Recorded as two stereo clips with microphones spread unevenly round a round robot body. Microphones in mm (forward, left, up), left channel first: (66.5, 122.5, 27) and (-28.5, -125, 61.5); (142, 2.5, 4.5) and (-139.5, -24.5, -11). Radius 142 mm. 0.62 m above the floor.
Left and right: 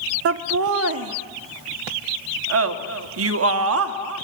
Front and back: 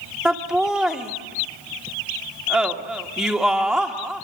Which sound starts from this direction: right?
Laughter, at 0.2 s.